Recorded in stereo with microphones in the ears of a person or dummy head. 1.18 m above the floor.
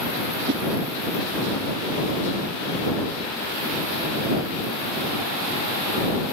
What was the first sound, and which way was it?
A whoosh, 60° right (ahead or behind).